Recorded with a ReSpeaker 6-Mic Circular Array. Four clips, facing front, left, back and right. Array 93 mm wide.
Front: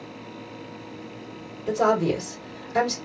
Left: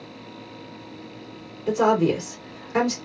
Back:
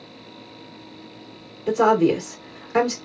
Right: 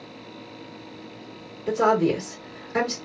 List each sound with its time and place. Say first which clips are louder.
1.7 s a woman speaking: left 1 dB, back 4 dB; 160° left, 1.6 m